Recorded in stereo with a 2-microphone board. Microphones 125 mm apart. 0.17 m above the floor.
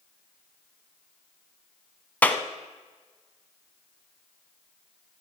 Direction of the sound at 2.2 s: 15° left (ahead or behind).